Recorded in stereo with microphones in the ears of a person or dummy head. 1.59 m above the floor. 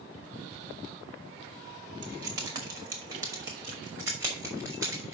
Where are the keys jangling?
25° right (ahead or behind), 1.6 m; by 5.2 s 15° right (ahead or behind), 4 m.